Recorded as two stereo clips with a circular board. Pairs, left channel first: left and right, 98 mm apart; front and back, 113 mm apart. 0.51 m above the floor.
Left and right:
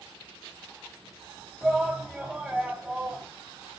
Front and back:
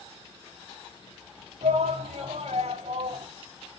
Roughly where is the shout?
Behind.